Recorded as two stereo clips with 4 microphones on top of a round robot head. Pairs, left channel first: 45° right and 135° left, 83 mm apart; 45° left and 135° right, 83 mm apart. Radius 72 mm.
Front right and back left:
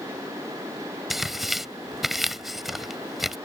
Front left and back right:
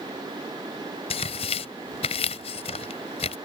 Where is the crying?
I don't hear crying.